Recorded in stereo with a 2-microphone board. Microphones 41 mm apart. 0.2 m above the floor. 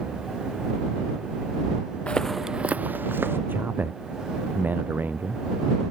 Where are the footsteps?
25° left (ahead or behind); by 3.4 s 65° right (ahead or behind).